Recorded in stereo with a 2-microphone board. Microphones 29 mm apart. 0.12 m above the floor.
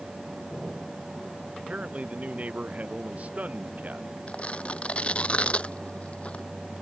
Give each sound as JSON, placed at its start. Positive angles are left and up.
{"t": 1.6, "sound": "a man speaking", "side_deg": -50}
{"t": 4.3, "sound": "tearing paper", "side_deg": 45}